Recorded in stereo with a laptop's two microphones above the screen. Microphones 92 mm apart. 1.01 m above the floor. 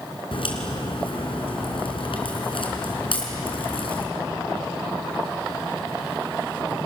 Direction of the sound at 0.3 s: 70° left (ahead or behind).